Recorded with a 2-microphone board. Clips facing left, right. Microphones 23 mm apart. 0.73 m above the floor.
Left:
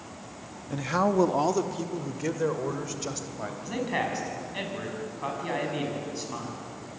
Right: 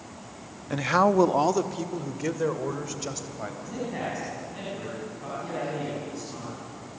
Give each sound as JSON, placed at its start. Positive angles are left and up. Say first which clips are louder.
{"t": 0.7, "sound": "a man speaking", "louder": "right 4 dB", "side_deg": -30, "distance_m": 0.5}
{"t": 3.6, "sound": "a man speaking", "louder": "left 4 dB", "side_deg": 45, "distance_m": 7.0}